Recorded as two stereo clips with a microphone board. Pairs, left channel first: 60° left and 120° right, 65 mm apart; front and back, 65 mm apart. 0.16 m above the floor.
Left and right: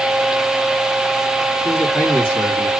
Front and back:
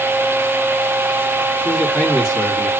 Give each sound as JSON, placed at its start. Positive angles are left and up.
{"t": 1.6, "sound": "a man speaking", "azimuth_deg": 70, "distance_m": 1.6}